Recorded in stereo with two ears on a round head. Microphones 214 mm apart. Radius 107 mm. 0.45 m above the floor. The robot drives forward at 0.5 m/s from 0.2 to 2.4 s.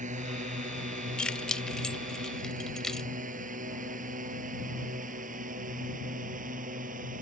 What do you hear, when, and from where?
0.0 s a drone: 30° right (ahead or behind); by 7.2 s 35° right (ahead or behind)
1.2 s keys jangling: 5° left (ahead or behind); by 3.1 s centre (ahead or behind)